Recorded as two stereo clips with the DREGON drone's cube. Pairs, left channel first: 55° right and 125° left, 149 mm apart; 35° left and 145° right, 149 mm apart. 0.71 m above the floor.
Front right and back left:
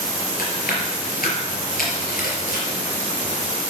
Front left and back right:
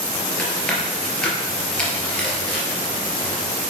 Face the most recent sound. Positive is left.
turn(degrees=-50)